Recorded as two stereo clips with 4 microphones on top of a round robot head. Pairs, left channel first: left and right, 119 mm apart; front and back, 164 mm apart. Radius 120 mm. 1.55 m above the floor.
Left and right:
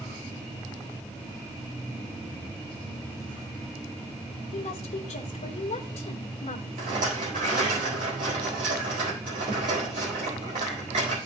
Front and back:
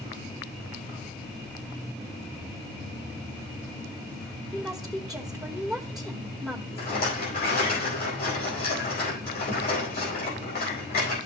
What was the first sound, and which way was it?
A woman speaking, 90° left.